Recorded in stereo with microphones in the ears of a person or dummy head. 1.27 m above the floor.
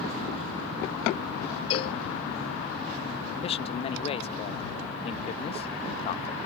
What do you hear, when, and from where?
1.7 s a cowbell: 35° left (ahead or behind)
3.4 s a man speaking: 25° left (ahead or behind)